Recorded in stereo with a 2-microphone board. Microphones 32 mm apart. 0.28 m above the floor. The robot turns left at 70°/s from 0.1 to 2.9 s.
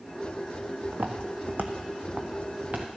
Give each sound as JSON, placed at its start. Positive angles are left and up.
{"t": 0.9, "sound": "footsteps", "side_deg": -80, "distance_m": 1.4}